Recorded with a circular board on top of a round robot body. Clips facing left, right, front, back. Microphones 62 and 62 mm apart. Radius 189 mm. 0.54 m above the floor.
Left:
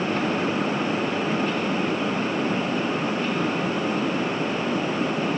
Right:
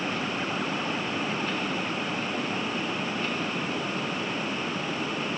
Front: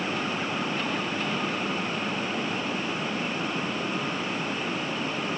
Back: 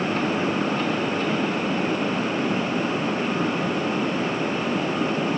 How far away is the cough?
I don't hear a cough.